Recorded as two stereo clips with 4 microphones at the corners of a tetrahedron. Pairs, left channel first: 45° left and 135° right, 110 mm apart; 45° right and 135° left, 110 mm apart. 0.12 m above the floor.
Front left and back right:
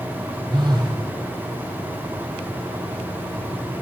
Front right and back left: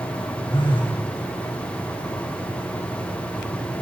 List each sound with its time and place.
0.5 s a phone buzzing: 85° right, 1.6 m